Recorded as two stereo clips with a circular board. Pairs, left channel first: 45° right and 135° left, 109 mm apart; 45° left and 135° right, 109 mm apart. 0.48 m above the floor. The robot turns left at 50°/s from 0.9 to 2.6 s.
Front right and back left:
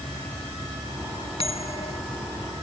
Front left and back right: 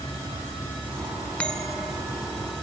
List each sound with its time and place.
1.4 s a bell: 30° right, 0.8 m; by 2.0 s 60° right, 0.8 m